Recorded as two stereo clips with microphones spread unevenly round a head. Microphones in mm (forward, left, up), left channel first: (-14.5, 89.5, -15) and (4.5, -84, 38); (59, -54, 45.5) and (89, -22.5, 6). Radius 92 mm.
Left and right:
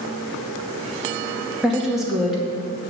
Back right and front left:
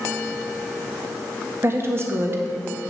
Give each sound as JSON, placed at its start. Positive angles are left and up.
{"t": 1.6, "sound": "a woman speaking", "azimuth_deg": 0, "distance_m": 1.8}